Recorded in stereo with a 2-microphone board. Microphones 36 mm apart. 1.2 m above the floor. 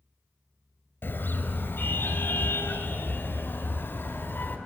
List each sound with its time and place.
1.0 s a car horn: 75° left (ahead or behind), 3.5 m; by 4.6 s 80° left, 5 m